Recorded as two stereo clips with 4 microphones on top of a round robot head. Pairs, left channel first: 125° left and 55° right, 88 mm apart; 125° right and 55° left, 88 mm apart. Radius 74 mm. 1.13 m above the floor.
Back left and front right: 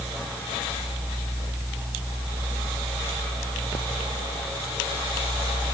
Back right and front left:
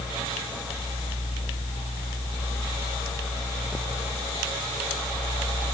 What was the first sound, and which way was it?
Only background noise.